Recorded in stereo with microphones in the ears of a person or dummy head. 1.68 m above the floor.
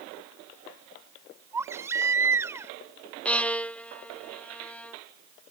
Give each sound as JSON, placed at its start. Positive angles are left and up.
{"t": 1.5, "sound": "a baby crying", "side_deg": -15}
{"t": 3.2, "sound": "a violin", "side_deg": 10}